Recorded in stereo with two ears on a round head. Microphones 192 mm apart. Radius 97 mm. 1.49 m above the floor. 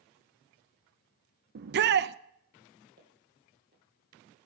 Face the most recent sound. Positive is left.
turn(degrees=-45)  # may be behind; listen again after turning